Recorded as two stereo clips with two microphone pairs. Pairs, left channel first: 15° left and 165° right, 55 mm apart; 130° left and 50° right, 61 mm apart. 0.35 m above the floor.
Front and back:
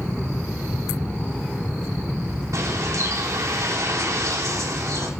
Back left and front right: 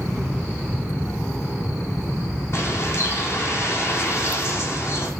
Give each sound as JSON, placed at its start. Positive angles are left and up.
{"t": 2.5, "sound": "a bird", "azimuth_deg": 175, "distance_m": 2.5}